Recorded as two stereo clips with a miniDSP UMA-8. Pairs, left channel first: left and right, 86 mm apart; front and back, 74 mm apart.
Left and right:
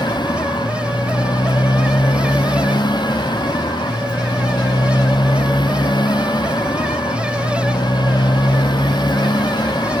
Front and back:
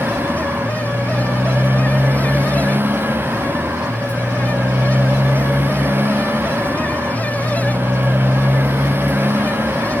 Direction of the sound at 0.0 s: 120° left.